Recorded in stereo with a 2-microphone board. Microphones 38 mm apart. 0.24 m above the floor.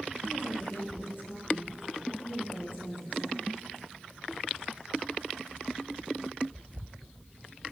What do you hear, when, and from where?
0.2 s a woman speaking: 65° left (ahead or behind), 5.5 m